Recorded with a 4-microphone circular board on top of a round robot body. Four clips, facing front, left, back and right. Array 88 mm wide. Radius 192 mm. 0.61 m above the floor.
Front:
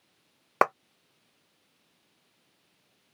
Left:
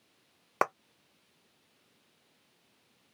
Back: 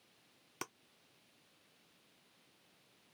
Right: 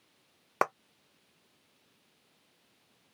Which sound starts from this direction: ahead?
A clap, at 0.6 s.